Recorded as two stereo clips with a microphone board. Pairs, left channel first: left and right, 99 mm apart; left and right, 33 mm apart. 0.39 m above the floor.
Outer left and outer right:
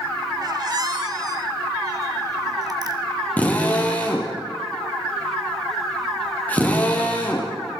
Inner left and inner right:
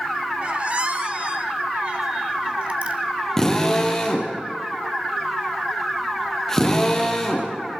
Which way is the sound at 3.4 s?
15° left (ahead or behind).